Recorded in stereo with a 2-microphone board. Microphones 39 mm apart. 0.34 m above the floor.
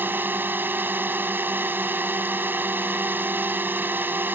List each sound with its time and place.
0.0 s a drone: 65° right (ahead or behind)